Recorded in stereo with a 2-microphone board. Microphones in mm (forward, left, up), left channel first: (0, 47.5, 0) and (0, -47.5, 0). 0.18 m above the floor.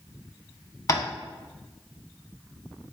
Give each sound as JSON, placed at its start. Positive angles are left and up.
{"t": 0.9, "sound": "tapping", "side_deg": 40, "distance_m": 0.5}